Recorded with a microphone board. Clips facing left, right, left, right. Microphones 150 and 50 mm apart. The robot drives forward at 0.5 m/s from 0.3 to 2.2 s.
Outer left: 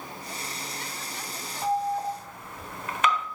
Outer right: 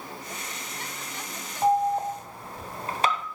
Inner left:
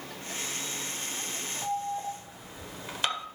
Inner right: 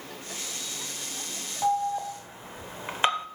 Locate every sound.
1.6 s an alarm: 30° right (ahead or behind), 1.3 m; by 3.3 s 35° right (ahead or behind), 1.2 m